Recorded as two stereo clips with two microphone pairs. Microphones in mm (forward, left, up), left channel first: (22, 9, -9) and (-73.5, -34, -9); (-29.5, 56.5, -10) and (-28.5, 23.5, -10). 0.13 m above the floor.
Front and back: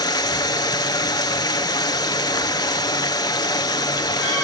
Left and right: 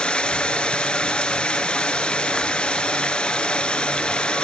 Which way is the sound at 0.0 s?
55° left.